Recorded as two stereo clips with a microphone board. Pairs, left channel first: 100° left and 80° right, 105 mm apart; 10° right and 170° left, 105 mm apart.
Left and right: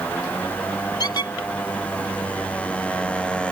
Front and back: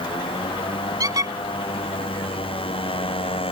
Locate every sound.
0.0 s a motorcycle: 25° left; by 3.5 s 20° left
1.0 s a squeak: 130° left